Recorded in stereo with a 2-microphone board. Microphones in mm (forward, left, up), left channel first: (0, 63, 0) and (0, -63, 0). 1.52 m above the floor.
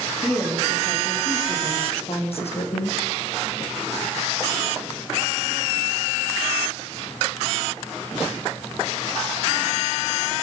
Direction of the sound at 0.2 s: 25° left (ahead or behind).